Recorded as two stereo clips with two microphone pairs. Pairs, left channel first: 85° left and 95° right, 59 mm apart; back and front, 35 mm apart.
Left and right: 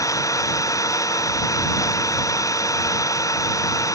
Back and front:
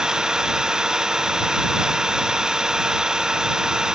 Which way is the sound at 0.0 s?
70° left.